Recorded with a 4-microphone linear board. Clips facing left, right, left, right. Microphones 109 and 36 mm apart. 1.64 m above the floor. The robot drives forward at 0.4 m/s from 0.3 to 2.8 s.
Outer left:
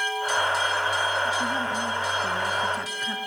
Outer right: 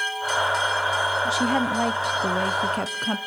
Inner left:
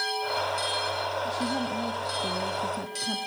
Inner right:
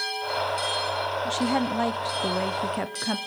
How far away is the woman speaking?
About 1.0 m.